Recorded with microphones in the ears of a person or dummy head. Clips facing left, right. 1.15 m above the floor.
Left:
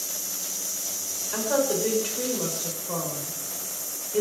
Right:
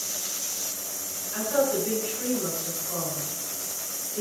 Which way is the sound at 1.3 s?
80° left.